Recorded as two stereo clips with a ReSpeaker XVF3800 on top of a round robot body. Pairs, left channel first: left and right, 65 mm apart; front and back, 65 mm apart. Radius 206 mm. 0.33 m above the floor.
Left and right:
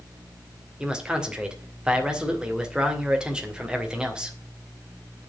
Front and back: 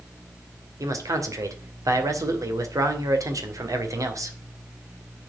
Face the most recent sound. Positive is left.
turn(degrees=-170)